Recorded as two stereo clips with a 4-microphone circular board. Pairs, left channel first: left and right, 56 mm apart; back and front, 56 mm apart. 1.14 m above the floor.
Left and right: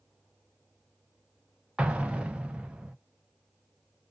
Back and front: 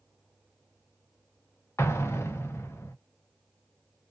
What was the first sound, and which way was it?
An explosion, 155° right.